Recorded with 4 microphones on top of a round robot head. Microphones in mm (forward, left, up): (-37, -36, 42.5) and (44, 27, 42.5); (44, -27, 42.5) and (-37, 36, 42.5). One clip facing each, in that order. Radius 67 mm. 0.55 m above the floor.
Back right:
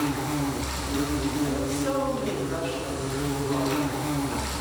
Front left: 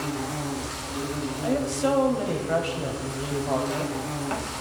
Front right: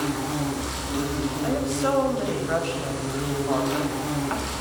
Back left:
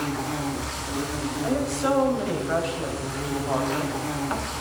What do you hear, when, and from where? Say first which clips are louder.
0.0 s an insect: back right 3 dB, front right 2 dB; 110° right, 4 m
1.4 s a woman speaking: front left 2 dB, back left 1 dB; 55° left, 4 m